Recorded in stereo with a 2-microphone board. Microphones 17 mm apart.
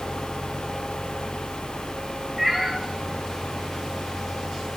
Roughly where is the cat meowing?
Centre.